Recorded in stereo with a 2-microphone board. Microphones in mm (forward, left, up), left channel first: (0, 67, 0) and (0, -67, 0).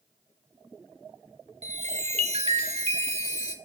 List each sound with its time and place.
1.6 s a chime: 50° right (ahead or behind), 0.7 m